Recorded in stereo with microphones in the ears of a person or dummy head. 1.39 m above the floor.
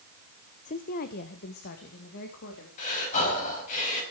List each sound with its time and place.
0.7 s a woman speaking: 40° left (ahead or behind), 0.7 m; by 2.7 s 60° left (ahead or behind), 3 m
2.8 s breathing: 40° left (ahead or behind), 5 m